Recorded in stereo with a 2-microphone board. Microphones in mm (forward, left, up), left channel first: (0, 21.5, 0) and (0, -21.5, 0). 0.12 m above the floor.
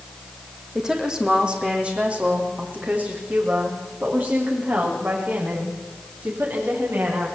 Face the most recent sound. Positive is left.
turn(degrees=-55)  # may be behind; listen again after turning